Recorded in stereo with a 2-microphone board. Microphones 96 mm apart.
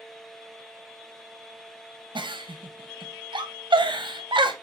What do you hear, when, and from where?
2.1 s a giggle: 55° right (ahead or behind), 0.7 m